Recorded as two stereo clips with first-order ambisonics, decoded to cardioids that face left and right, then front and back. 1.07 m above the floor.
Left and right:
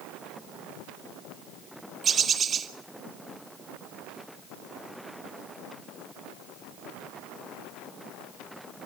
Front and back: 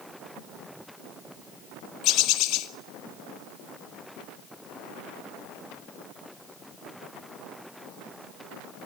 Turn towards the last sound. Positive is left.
turn(degrees=-25)